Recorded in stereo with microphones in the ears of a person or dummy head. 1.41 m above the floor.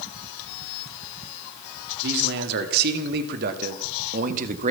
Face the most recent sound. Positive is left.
turn(degrees=-45)  # may be behind; listen again after turning